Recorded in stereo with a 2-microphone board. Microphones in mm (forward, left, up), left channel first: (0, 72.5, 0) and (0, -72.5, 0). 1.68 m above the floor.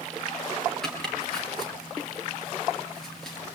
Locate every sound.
0.8 s chopping: 5° left (ahead or behind), 5.5 m